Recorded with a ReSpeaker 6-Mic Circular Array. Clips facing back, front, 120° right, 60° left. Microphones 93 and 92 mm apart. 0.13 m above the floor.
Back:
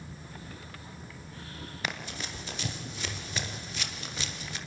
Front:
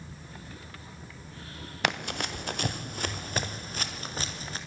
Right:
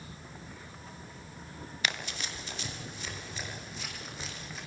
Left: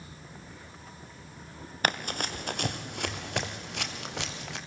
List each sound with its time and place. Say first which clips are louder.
1.8 s running footsteps: front 7 dB, left 7 dB; 20° left, 2.5 m; by 4.6 s 50° left, 5.5 m